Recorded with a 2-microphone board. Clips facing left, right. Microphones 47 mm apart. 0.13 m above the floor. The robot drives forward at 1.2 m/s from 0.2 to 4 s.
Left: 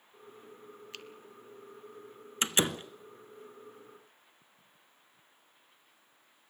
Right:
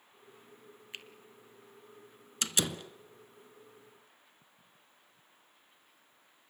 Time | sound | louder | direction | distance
0.9 | a finger snap | right 2 dB | 20° right (ahead or behind) | 1.7 m
2.4 | a door slam | left 4 dB | 30° left (ahead or behind) | 1.1 m